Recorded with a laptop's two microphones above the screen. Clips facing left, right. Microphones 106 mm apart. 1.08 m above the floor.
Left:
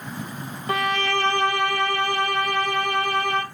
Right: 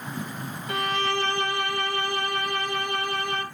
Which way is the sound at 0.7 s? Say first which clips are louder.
Left 3 dB; 60° left (ahead or behind).